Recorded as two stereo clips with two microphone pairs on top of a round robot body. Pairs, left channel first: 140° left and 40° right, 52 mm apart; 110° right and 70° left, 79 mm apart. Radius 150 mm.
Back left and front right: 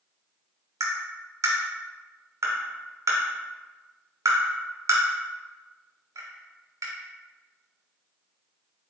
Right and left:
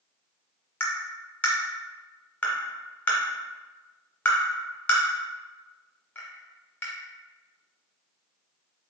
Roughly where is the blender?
I don't hear a blender.